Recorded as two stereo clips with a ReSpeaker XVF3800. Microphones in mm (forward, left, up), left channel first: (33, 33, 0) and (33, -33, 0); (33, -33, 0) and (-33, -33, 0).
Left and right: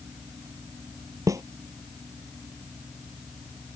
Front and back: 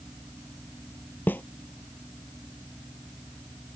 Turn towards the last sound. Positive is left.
turn(degrees=-60)